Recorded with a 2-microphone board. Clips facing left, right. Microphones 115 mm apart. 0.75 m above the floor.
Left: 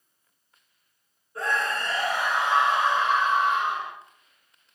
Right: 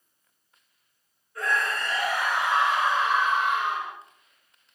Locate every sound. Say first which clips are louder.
1.4 s a scream: even; 30° left (ahead or behind), 3 m